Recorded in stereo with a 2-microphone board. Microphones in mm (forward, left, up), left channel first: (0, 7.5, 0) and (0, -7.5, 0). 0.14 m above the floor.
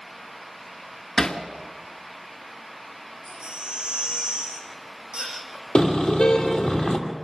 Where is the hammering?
50° left (ahead or behind), 1.7 m.